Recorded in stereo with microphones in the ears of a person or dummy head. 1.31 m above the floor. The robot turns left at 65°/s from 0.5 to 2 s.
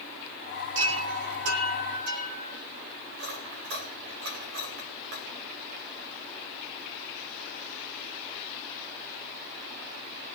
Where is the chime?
40° right, 8.5 m; by 2.5 s 125° right, 8.5 m.